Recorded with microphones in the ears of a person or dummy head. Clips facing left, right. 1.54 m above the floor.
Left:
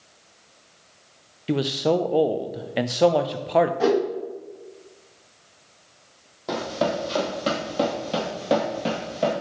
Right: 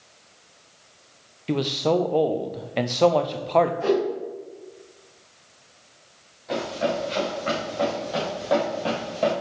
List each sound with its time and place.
1.5 s a man speaking: 5° left (ahead or behind), 0.5 m
3.8 s a whoosh: 70° left (ahead or behind), 1.8 m
6.5 s running footsteps: 55° left (ahead or behind), 2.5 m; by 9.3 s 5° left (ahead or behind), 1.9 m